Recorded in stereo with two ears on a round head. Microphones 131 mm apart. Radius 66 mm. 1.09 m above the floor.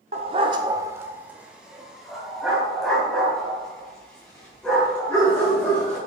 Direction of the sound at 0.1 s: 45° right (ahead or behind).